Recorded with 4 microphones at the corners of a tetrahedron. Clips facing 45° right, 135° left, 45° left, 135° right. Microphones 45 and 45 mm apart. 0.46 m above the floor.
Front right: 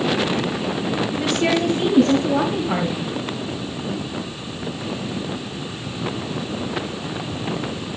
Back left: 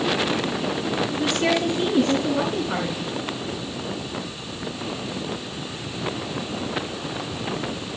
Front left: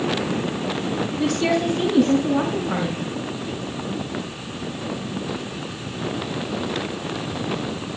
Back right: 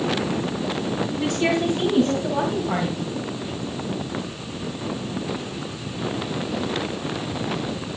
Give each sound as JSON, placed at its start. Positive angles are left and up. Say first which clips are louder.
{"t": 1.2, "sound": "a woman speaking", "louder": "front right 2 dB, front left 1 dB", "azimuth_deg": -70, "distance_m": 4.5}